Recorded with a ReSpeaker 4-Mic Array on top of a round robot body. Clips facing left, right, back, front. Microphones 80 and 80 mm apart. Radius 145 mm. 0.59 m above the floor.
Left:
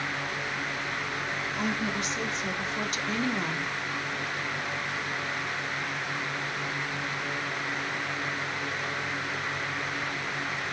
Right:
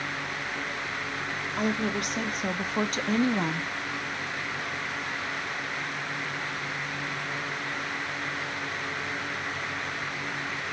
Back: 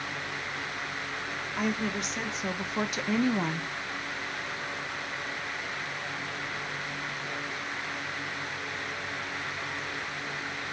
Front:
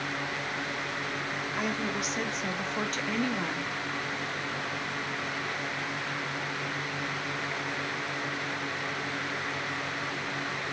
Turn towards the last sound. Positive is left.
turn(degrees=-140)